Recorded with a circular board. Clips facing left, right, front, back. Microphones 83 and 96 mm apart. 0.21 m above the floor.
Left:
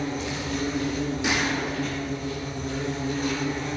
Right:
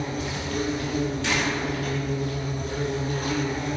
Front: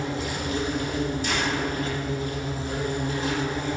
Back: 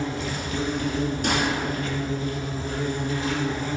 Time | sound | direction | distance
0.0 | an insect | 50° right | 3.5 m
1.2 | a gunshot | 165° left | 3 m